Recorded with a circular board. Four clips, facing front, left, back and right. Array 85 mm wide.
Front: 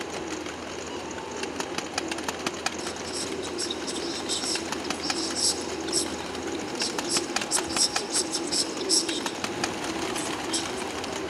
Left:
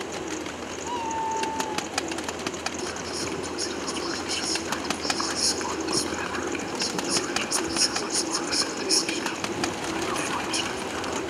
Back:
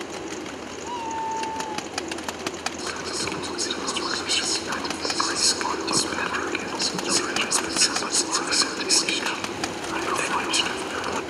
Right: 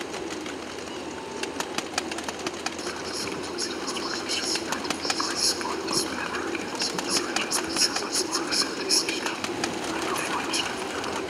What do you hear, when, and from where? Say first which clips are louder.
0.8 s a cat meowing: left 7 dB, back 6 dB; 130° left; by 1.9 s 150° left
2.8 s whispering: left 1 dB, back 3 dB; 175° right